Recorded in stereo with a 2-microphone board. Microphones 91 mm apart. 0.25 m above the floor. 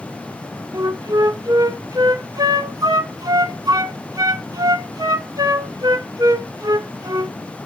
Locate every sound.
0.7 s a flute: 50° right (ahead or behind), 0.5 m